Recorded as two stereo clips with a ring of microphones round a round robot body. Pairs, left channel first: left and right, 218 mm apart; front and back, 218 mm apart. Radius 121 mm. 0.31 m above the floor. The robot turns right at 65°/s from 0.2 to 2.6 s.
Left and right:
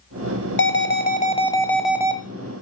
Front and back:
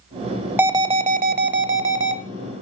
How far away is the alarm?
About 1.1 m.